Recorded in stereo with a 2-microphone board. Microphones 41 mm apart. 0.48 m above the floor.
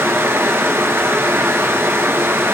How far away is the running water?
About 1.7 m.